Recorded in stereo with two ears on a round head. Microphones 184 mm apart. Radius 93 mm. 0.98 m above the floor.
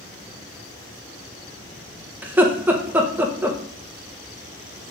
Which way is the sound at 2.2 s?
10° right (ahead or behind).